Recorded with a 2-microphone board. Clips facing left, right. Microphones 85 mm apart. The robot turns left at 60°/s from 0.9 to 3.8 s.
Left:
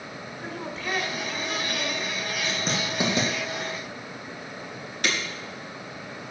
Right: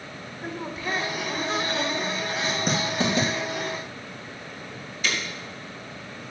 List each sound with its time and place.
0.4 s a woman speaking: 20° right, 1.6 m; by 2.3 s 105° right, 1.6 m
2.4 s writing: 20° right (ahead or behind), 2.5 m; by 3.3 s 30° left (ahead or behind), 2.5 m
5.0 s breaking glass: 75° left (ahead or behind), 2 m